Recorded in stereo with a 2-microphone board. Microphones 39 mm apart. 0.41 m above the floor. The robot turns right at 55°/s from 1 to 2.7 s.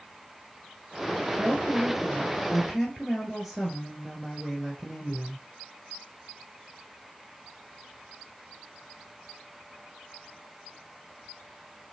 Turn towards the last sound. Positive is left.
turn(degrees=0)